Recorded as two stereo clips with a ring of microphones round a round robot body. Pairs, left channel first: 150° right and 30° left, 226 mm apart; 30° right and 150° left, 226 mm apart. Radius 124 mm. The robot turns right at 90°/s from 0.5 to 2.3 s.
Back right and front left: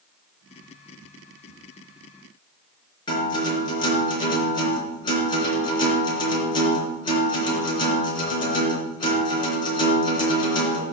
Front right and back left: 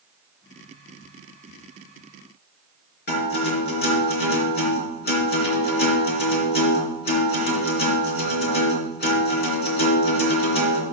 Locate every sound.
3.1 s a guitar: 80° right, 4 m